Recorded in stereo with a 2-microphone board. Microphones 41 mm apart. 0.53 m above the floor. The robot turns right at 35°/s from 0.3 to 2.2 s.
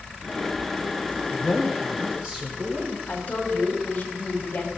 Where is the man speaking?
175° left, 1.3 m; by 3.0 s 155° right, 1.3 m.